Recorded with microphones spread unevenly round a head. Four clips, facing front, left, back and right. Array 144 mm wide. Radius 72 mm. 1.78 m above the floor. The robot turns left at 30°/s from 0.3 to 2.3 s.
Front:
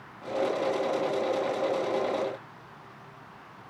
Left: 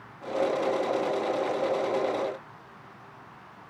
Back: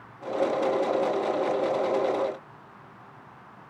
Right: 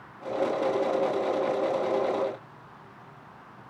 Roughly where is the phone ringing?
No phone ringing in this recording.